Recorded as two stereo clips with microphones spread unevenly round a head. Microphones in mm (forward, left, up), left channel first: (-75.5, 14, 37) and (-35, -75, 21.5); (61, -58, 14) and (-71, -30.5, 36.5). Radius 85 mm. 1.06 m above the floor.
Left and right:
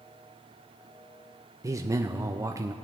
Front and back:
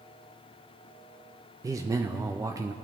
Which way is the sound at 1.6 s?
120° right.